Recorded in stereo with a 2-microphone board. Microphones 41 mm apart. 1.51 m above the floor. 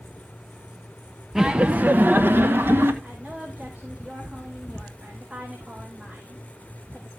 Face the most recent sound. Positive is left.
turn(degrees=-30)  # may be behind; listen again after turning